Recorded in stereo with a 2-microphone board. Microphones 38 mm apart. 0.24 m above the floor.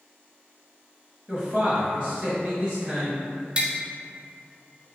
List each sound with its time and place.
1.3 s a man speaking: 15° right (ahead or behind), 1.0 m; by 3.2 s 30° right (ahead or behind), 1.8 m
3.6 s tapping: 25° right (ahead or behind), 0.5 m